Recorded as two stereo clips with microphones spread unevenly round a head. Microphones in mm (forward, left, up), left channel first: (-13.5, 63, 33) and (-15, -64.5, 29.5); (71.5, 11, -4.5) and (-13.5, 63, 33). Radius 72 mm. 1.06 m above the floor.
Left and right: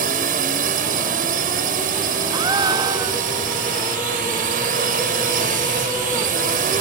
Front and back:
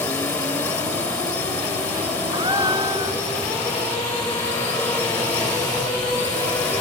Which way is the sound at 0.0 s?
105° right.